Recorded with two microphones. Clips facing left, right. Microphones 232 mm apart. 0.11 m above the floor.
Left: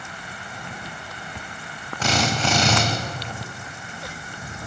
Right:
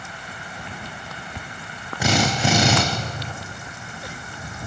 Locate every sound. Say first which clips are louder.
2.0 s a drill: right 3 dB; 10° right (ahead or behind), 4.5 m